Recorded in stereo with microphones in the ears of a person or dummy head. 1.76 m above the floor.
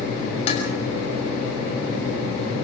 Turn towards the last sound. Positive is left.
turn(degrees=35)  # may be behind; listen again after turning